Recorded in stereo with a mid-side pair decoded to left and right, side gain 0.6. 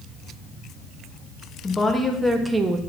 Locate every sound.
1.6 s a woman speaking: 15° left, 1.2 m; by 2.8 s 40° right, 0.7 m